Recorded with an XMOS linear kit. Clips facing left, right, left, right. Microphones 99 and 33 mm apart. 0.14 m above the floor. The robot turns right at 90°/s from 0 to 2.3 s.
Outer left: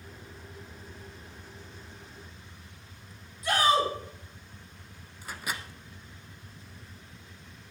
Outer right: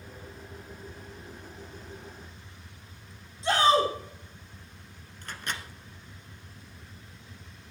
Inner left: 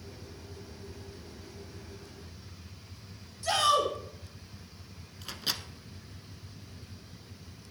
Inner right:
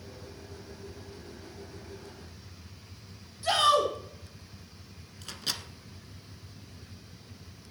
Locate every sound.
3.4 s a shout: 25° right (ahead or behind), 5 m
5.2 s a microwave: 5° left (ahead or behind), 1.1 m